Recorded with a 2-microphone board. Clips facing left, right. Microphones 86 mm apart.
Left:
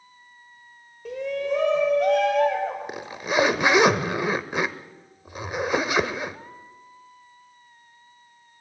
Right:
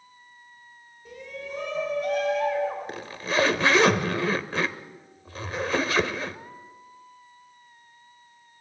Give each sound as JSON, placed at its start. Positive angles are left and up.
{"t": 1.1, "sound": "a shout", "side_deg": 85, "distance_m": 3.5}
{"t": 2.9, "sound": "a zipper", "side_deg": 15, "distance_m": 0.9}